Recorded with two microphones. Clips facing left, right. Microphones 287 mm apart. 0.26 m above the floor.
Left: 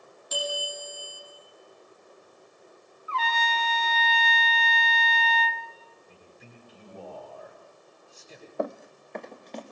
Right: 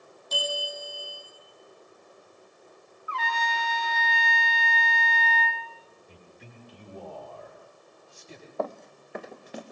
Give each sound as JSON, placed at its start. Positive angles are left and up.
{"t": 0.3, "sound": "a bell", "side_deg": 10, "distance_m": 7.5}
{"t": 3.1, "sound": "a trumpet", "side_deg": -15, "distance_m": 1.2}
{"t": 6.1, "sound": "a man speaking", "side_deg": -80, "distance_m": 7.0}
{"t": 8.6, "sound": "running footsteps", "side_deg": 20, "distance_m": 0.6}